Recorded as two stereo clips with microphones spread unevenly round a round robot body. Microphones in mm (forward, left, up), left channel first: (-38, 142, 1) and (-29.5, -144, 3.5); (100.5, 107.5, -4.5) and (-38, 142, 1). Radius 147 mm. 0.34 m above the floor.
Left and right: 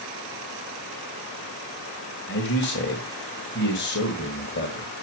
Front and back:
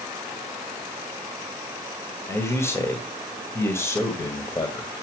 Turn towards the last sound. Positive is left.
turn(degrees=50)